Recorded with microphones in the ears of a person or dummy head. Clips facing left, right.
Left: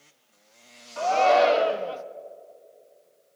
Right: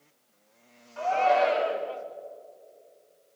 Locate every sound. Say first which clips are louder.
1.0 s a shout: left 4 dB; 65° left (ahead or behind), 1.1 m